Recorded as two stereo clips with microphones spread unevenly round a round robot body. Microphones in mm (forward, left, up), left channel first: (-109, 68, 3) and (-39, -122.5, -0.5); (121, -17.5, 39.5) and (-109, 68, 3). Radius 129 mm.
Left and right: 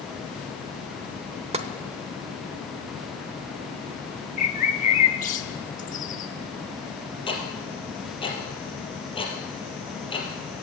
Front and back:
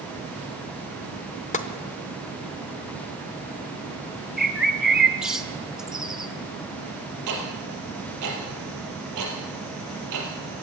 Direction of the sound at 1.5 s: 70° right.